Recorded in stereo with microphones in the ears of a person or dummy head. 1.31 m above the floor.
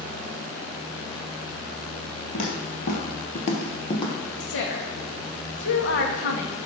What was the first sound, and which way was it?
Footsteps, 35° left (ahead or behind).